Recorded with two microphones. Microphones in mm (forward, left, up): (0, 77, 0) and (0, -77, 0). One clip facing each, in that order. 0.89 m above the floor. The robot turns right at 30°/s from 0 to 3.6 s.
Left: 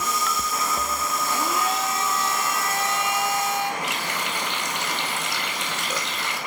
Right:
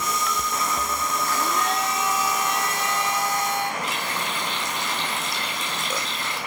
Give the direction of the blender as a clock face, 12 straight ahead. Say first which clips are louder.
Left 1 dB; 7 o'clock.